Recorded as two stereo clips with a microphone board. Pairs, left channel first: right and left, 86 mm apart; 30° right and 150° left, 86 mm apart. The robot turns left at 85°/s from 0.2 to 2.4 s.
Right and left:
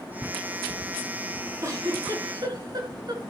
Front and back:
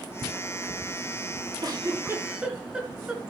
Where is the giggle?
145° left, 3 m; by 3.3 s 75° left, 3 m.